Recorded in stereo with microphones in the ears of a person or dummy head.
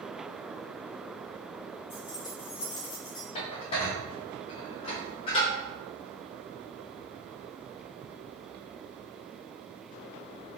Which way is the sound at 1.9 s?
10° left (ahead or behind).